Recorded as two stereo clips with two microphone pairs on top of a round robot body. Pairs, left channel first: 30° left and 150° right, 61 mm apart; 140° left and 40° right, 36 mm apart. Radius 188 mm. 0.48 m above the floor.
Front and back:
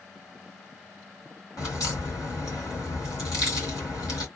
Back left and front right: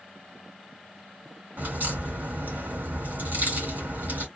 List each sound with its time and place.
1.6 s a crack: 5° right, 3 m